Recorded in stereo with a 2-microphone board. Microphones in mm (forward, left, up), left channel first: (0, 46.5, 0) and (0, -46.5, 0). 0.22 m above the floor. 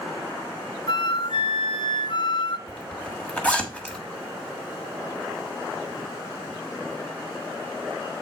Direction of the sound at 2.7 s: 10° left (ahead or behind).